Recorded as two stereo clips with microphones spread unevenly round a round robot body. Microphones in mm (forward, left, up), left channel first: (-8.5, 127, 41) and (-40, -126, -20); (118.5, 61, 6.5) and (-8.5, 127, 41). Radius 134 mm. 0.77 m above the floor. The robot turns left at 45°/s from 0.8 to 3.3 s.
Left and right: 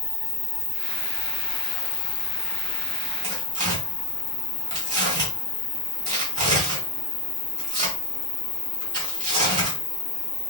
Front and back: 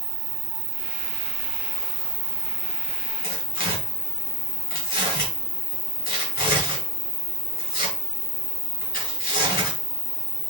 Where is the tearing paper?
30° right, 2.5 m; by 9.8 s 35° right, 2.5 m.